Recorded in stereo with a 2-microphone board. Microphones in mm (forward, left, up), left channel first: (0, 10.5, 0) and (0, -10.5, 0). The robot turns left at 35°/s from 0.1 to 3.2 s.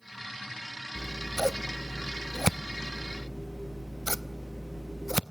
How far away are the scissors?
About 0.5 m.